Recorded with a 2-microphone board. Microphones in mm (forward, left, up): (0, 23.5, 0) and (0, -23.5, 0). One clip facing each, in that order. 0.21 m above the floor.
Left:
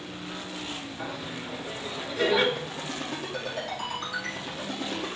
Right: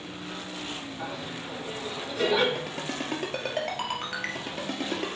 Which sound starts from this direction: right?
A ringtone, at 2.5 s.